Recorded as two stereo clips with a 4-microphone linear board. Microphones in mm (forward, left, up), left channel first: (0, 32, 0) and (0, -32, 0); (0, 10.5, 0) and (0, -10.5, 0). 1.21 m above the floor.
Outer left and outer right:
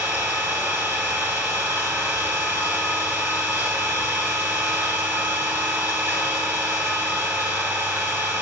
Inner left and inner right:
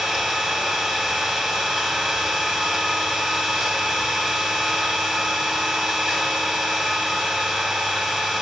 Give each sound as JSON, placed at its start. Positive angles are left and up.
{"t": 0.0, "sound": "an engine running", "side_deg": -35, "distance_m": 5.5}